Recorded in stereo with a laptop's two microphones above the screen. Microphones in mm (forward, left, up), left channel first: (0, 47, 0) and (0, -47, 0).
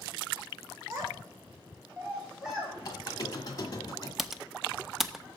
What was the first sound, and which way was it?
A child speaking, 35° right (ahead or behind).